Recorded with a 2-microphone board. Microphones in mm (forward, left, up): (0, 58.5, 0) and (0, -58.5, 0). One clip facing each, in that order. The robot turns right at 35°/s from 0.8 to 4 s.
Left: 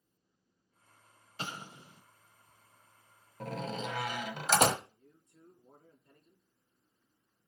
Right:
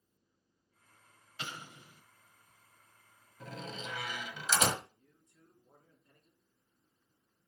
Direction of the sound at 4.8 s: 55° left (ahead or behind).